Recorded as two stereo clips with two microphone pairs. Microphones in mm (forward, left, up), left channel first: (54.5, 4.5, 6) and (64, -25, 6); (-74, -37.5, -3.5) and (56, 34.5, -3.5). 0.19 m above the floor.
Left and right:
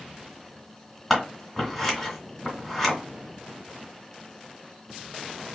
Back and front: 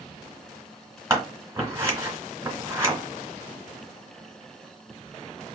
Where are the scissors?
20° left, 1.6 m.